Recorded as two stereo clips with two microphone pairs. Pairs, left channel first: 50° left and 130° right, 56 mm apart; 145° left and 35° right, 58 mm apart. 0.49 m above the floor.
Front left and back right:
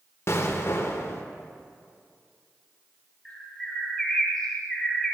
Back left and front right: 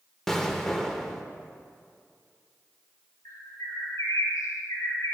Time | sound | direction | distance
0.3 | an explosion | 65° left | 0.9 m
3.2 | a bird | 135° left | 1.8 m